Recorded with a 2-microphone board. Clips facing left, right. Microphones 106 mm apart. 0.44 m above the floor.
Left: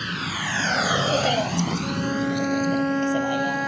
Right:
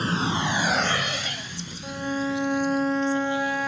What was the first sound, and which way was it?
A vehicle, 35° right (ahead or behind).